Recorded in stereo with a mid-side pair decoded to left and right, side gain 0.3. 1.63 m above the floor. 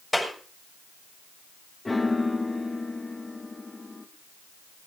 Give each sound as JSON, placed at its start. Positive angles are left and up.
{"t": 0.1, "sound": "a clap", "azimuth_deg": 15, "distance_m": 6.5}
{"t": 1.9, "sound": "a piano", "azimuth_deg": 25, "distance_m": 2.5}